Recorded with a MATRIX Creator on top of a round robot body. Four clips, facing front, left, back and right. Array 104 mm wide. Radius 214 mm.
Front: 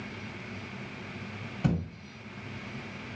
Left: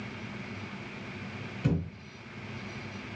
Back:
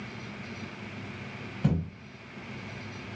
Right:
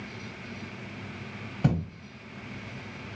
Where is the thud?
85° right, 0.9 m.